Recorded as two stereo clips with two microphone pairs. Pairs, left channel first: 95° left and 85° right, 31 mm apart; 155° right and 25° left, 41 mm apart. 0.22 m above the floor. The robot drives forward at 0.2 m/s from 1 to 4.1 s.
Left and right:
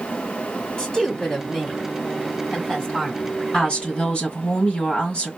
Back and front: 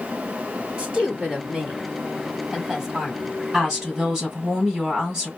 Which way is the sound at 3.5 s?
90° left.